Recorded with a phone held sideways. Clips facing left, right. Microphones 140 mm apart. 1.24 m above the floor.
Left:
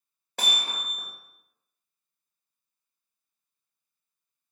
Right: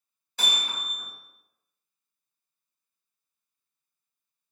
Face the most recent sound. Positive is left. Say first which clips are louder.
# left 1 dB
turn(degrees=65)  # may be behind; listen again after turning